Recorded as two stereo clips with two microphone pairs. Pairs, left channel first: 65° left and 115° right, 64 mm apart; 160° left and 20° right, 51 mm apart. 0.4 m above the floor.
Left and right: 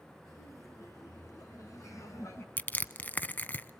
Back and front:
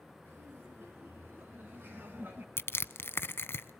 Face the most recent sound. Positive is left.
turn(degrees=125)